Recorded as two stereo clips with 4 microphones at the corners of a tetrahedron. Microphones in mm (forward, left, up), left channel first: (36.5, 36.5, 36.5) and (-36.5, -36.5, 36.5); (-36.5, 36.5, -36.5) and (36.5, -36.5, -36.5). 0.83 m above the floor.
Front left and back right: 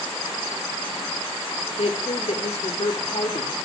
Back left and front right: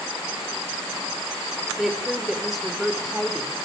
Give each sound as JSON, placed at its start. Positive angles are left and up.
{"t": 1.8, "sound": "a woman speaking", "azimuth_deg": 45, "distance_m": 3.0}